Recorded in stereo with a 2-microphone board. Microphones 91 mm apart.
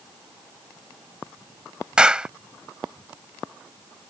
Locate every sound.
2.0 s a clap: 10° right (ahead or behind)